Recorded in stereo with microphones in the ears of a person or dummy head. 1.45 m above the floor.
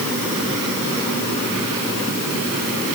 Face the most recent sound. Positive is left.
No sound to turn to.